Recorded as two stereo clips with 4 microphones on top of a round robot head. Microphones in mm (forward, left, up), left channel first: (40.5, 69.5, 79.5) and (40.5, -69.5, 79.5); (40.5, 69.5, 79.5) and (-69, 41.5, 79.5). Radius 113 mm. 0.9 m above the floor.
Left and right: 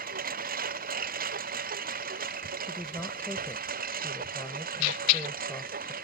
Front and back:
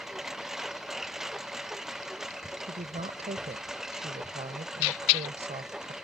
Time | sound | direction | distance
0.0 | a lawn mower | 80° right | ?
2.7 | a woman speaking | 170° left | ?